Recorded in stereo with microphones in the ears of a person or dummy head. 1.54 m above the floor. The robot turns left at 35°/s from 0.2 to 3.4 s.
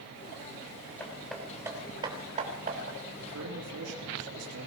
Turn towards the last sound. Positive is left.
turn(degrees=-90)